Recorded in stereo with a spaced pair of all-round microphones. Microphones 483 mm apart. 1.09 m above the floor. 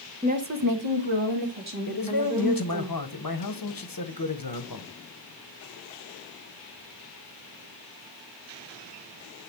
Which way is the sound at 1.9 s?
45° left (ahead or behind).